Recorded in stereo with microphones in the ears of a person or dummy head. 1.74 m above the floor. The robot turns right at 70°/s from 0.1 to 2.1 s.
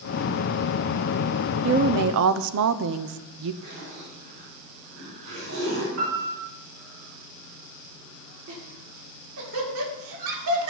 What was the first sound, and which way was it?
A woman speaking, 145° right.